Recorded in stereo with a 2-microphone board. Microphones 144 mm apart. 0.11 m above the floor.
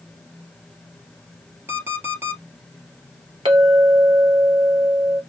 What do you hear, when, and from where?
1.7 s an alarm clock: 15° right (ahead or behind), 1.4 m
3.5 s a clink: 40° right (ahead or behind), 1.6 m